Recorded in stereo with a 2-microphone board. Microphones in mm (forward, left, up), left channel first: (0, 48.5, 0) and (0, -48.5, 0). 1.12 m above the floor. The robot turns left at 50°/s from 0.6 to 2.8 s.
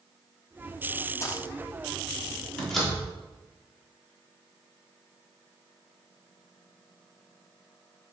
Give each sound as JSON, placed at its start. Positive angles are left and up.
{"t": 1.2, "sound": "a dropped coin", "side_deg": 30, "distance_m": 0.8}
{"t": 2.6, "sound": "a door slam", "side_deg": 10, "distance_m": 2.0}